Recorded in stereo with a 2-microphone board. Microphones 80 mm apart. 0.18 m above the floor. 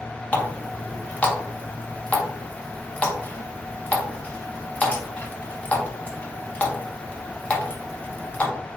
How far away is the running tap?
About 0.7 m.